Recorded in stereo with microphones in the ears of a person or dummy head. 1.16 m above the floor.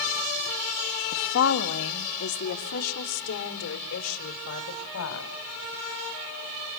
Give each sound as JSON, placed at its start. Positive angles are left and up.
{"t": 1.1, "sound": "a woman speaking", "side_deg": 60, "distance_m": 1.9}